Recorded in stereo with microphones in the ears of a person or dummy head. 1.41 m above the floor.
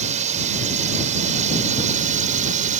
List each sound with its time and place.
0.0 s a drone: 40° right (ahead or behind)